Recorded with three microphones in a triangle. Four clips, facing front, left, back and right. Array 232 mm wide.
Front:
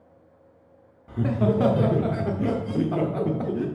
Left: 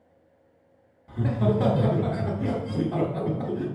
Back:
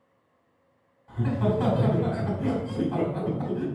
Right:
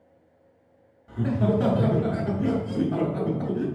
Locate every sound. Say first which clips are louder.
1.1 s laughter: right 1 dB, front 3 dB; 10° left, 0.9 m